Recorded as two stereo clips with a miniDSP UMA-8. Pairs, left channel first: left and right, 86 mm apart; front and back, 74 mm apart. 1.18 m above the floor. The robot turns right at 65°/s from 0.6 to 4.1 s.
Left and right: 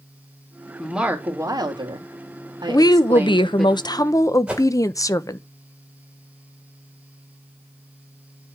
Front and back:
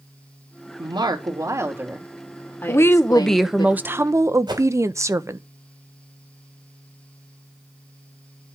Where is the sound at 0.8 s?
Straight behind, 2.5 m; by 3.7 s 5° left, 2.5 m.